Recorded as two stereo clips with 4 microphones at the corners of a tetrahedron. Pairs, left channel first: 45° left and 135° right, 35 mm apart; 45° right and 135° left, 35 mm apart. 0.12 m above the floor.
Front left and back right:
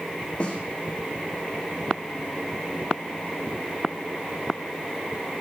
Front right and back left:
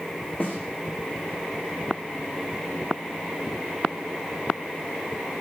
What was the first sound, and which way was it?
A snare drum, 15° right.